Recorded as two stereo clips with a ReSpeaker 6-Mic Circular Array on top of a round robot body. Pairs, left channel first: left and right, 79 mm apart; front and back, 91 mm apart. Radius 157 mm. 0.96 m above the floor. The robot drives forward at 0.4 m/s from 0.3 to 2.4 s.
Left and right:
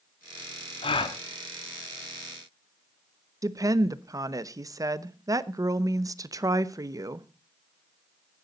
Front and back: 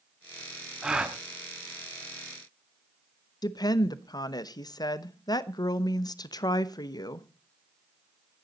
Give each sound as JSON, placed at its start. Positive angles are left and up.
{"t": 0.8, "sound": "a gasp", "azimuth_deg": 95, "distance_m": 1.2}
{"t": 3.4, "sound": "a woman speaking", "azimuth_deg": -45, "distance_m": 1.1}